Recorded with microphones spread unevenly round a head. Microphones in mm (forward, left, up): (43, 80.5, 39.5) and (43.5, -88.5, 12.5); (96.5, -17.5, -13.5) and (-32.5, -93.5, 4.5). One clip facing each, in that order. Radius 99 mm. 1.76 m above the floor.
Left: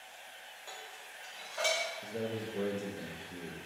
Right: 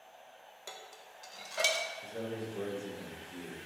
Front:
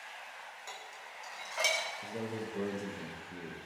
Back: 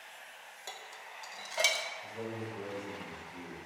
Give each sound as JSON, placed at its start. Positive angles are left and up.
{"t": 0.7, "sound": "dishes clattering", "azimuth_deg": -135, "distance_m": 1.0}
{"t": 2.0, "sound": "a man speaking", "azimuth_deg": 20, "distance_m": 1.2}